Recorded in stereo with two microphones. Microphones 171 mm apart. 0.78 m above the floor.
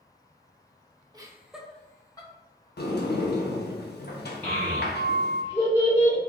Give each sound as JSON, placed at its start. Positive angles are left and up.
{"t": 1.1, "sound": "laughter", "side_deg": -25, "distance_m": 0.9}
{"t": 2.8, "sound": "a sliding door", "side_deg": 70, "distance_m": 0.8}
{"t": 4.4, "sound": "a child speaking", "side_deg": 30, "distance_m": 1.5}